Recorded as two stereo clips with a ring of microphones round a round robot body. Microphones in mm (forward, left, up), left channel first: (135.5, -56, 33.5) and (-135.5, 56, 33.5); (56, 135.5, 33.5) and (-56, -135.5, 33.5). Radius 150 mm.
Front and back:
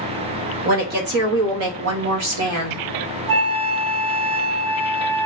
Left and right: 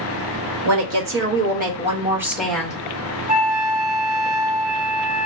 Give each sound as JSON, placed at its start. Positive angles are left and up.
{"t": 0.7, "sound": "a woman speaking", "azimuth_deg": -145, "distance_m": 1.5}
{"t": 3.3, "sound": "a flute", "azimuth_deg": 170, "distance_m": 2.0}